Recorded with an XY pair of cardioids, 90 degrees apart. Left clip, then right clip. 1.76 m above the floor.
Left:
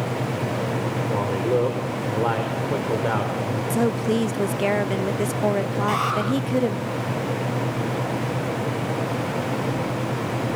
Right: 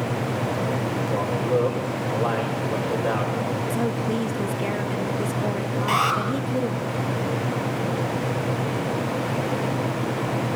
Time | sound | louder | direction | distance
1.1 | a man speaking | left 1 dB | 35° left | 6 m
3.7 | a woman speaking | left 3 dB | 55° left | 0.8 m
5.9 | an alarm | right 3 dB | 35° right | 8.5 m